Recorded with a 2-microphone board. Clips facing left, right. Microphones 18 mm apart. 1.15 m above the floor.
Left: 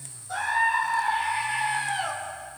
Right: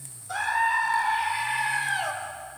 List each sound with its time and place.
0.3 s a scream: 25° right (ahead or behind), 3 m; by 2.1 s 35° right (ahead or behind), 4 m